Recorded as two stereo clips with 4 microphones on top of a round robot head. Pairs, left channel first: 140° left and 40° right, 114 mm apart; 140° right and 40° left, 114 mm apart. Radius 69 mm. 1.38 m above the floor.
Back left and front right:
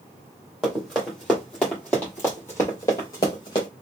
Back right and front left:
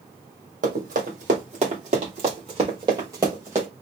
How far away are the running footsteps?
About 2 m.